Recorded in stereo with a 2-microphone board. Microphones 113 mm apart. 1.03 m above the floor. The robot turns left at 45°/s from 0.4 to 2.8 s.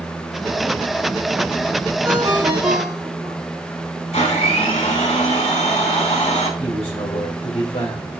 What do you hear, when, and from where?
2.0 s a ringtone: 25° right, 3 m; by 3.4 s 60° right, 3 m
4.1 s a blender: 70° left (ahead or behind), 5 m
6.6 s a man speaking: 60° left (ahead or behind), 4 m